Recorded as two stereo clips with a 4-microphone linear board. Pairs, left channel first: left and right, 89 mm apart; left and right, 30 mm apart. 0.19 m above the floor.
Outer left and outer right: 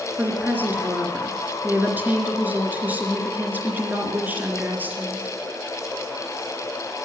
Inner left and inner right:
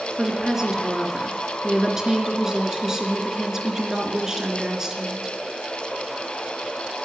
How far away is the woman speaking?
About 3 m.